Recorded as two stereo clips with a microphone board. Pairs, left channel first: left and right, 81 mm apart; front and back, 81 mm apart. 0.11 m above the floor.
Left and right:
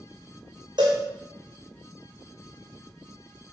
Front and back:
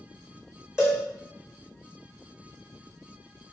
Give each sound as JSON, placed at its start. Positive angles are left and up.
{"t": 0.8, "sound": "a cowbell", "azimuth_deg": -100, "distance_m": 2.0}